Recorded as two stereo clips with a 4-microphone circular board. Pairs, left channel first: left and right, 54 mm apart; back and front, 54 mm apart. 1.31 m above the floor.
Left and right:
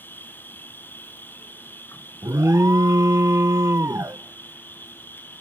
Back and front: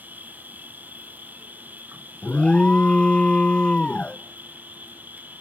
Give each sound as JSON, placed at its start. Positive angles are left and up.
{"t": 0.0, "sound": "an insect", "azimuth_deg": 45, "distance_m": 2.0}
{"t": 2.2, "sound": "an alarm", "azimuth_deg": -110, "distance_m": 0.8}